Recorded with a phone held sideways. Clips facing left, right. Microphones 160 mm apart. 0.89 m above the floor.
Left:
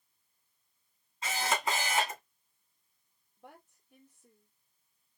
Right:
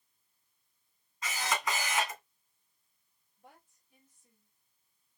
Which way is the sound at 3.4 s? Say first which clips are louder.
Left 5 dB; 75° left (ahead or behind).